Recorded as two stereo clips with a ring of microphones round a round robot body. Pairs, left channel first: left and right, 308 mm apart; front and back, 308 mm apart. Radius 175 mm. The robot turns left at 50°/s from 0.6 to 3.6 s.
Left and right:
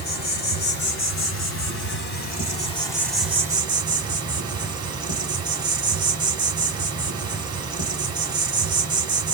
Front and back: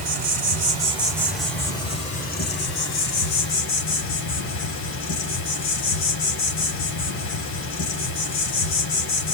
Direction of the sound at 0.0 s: 130° left.